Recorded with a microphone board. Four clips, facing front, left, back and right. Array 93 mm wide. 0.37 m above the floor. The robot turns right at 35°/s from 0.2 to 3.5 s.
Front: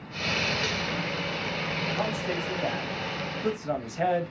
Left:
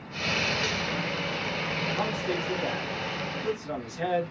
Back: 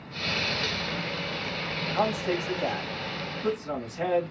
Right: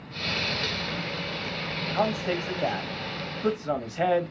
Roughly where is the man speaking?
Behind right.